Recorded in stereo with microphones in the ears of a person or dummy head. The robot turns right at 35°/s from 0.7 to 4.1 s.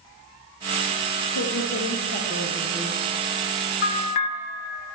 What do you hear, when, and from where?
1.4 s a woman speaking: 110° left, 0.9 m; by 3.0 s 170° left, 0.9 m
3.8 s a bell: 40° left (ahead or behind), 0.5 m; by 4.3 s 35° left (ahead or behind), 0.5 m